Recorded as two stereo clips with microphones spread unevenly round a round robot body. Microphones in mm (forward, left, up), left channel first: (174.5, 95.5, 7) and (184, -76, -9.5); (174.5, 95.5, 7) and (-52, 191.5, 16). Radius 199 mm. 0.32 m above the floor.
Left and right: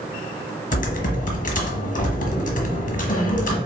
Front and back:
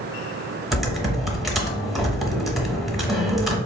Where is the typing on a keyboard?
65° left, 0.9 m.